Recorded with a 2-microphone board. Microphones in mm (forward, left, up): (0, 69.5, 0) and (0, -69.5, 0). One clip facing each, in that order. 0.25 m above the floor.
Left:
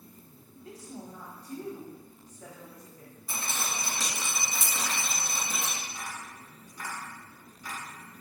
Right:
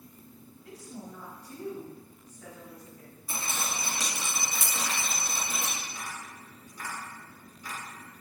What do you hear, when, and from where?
0.5 s a woman speaking: 30° left (ahead or behind), 1.0 m
3.3 s dripping: 5° right (ahead or behind), 1.9 m
5.8 s tapping: 20° left (ahead or behind), 1.9 m